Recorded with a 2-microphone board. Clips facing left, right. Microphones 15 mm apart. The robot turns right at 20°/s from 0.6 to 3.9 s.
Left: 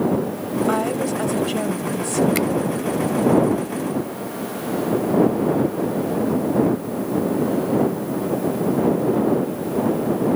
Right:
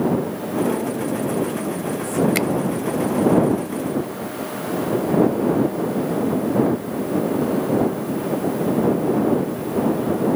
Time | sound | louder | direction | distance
0.7 | a woman speaking | left 2 dB | 85° left | ?
2.4 | a finger snap | even | 15° right (ahead or behind) | ?